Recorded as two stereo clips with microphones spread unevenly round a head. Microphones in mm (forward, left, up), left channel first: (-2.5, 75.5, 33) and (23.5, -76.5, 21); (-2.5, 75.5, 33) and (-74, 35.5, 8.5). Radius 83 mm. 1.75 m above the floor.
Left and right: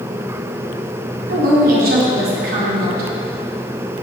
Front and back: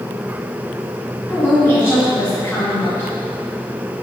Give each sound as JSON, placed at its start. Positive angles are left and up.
{"t": 1.3, "sound": "a woman speaking", "azimuth_deg": -45, "distance_m": 1.9}